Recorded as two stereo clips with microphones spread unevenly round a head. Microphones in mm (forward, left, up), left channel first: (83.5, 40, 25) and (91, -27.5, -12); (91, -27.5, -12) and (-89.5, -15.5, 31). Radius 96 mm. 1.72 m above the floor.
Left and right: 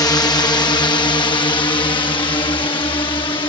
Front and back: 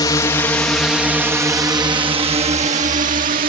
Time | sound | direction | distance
0.0 | a drone | 70° left | ?